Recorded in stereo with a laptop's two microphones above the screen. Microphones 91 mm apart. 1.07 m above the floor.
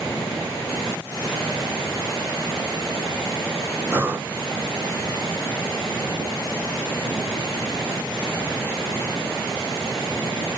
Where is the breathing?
25° right (ahead or behind), 0.6 m.